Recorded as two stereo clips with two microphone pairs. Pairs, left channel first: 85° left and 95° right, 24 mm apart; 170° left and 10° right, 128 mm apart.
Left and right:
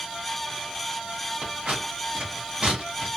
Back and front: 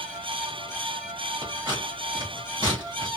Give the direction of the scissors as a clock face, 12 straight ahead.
2 o'clock.